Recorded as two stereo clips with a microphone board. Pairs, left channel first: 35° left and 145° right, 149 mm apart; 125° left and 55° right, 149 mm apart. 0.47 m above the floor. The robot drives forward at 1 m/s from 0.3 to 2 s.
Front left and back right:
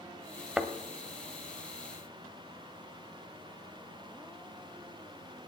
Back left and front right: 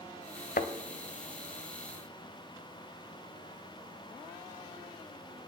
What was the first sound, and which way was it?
A thud, 130° left.